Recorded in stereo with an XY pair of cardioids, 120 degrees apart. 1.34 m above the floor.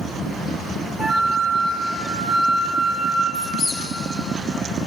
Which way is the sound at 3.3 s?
50° left.